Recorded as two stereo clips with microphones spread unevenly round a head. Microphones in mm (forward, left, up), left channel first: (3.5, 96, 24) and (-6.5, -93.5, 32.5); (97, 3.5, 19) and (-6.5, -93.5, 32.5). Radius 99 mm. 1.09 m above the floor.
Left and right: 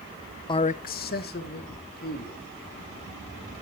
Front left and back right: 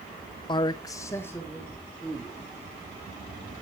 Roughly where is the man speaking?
Ahead left.